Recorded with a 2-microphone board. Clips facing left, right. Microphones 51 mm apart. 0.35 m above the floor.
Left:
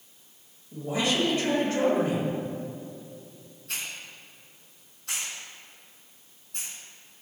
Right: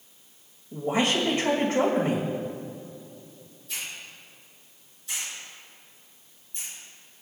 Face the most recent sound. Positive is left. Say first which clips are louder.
# left 1 dB
turn(degrees=65)  # may be behind; listen again after turning